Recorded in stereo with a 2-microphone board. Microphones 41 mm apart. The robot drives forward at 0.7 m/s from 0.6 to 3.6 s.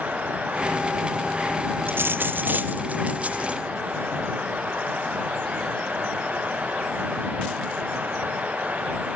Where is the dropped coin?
75° right (ahead or behind), 0.8 m; by 3.6 s 30° right (ahead or behind), 1.5 m.